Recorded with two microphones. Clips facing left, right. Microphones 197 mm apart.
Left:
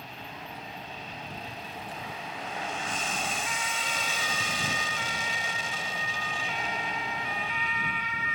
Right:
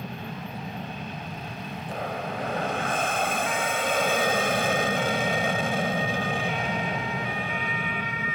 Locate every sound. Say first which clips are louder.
0.0 s an aircraft: right 8 dB; 60° right (ahead or behind)